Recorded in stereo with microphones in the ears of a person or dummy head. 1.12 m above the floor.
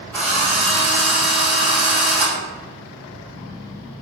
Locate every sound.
0.1 s a drill: 5° left (ahead or behind), 7 m